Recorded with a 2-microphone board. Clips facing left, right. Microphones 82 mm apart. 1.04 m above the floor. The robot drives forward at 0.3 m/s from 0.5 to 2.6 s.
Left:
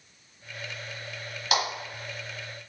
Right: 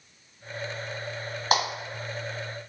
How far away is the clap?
About 1.2 m.